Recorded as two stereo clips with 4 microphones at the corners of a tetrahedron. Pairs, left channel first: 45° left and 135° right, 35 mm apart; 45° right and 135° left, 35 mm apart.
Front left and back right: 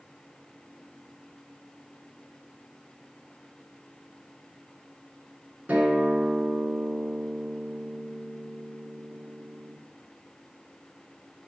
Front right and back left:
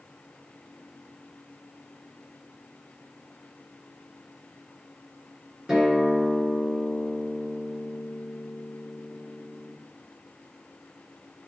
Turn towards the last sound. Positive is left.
turn(degrees=-165)